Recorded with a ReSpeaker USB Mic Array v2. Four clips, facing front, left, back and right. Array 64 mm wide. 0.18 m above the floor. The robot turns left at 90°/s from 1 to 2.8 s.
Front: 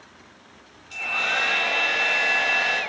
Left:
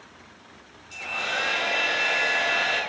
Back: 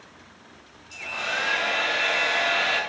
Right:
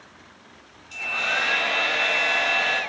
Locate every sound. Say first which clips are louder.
0.9 s a hair dryer: right 3 dB, front 4 dB; 20° right, 1.2 m; by 2.8 s straight behind, 1.2 m